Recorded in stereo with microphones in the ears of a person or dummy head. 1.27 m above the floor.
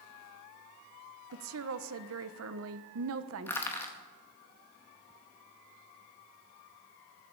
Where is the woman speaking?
70° right (ahead or behind), 1.1 m.